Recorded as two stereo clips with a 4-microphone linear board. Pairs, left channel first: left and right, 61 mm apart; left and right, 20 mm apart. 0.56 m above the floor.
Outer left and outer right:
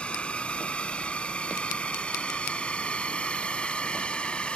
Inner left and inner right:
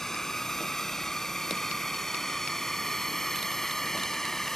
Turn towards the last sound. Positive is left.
turn(degrees=15)  # may be behind; listen again after turning